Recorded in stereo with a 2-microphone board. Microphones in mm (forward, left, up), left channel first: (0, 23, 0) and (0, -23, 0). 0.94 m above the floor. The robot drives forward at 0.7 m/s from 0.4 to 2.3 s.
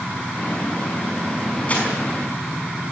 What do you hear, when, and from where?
1.7 s crumpling: 30° left (ahead or behind), 5.5 m